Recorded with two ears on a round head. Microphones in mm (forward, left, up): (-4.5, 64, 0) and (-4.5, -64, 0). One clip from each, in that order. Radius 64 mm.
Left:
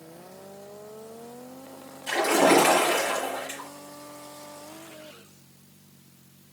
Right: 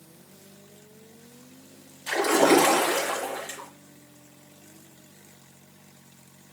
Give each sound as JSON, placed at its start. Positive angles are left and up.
{"t": 2.1, "sound": "a splash", "side_deg": -50, "distance_m": 4.0}